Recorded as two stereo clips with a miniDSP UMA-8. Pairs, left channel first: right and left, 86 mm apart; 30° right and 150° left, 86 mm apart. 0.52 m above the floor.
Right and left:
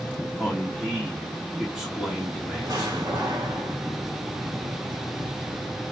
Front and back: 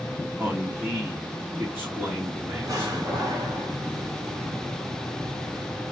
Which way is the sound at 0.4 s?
155° left.